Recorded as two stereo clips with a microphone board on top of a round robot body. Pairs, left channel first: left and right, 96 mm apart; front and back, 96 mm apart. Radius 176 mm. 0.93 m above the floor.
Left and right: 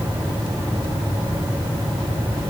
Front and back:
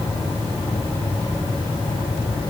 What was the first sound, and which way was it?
Only background noise.